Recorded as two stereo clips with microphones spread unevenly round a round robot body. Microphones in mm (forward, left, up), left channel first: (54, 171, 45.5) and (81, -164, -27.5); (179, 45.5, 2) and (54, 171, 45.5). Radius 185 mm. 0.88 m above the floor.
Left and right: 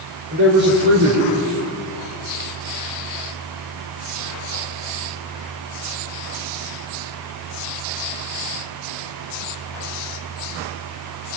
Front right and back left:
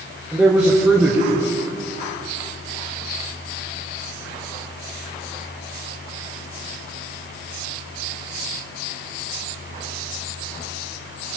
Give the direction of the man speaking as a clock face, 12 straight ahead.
5 o'clock.